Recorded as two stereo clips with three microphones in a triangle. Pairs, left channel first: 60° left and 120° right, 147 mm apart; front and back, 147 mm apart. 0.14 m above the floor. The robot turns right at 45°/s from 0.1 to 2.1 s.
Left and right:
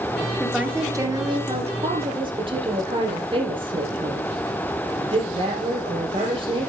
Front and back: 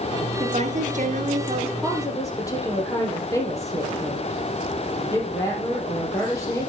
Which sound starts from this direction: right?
A woman speaking, at 1.8 s.